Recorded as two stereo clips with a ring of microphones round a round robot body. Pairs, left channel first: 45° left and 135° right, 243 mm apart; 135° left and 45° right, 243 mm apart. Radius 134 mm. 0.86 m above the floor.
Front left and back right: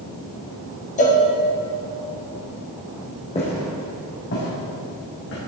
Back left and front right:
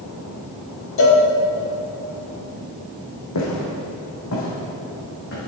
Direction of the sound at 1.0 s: 105° left.